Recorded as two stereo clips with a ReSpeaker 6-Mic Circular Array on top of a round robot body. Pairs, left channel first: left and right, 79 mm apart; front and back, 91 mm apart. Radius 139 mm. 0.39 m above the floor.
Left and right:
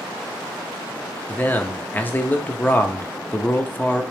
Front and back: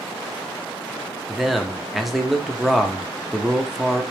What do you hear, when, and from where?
1.3 s a man speaking: 95° left, 0.8 m